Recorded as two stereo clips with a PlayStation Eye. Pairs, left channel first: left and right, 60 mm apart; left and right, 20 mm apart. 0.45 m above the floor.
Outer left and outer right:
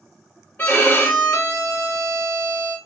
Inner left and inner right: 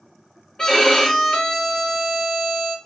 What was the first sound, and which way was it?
A violin, 30° left (ahead or behind).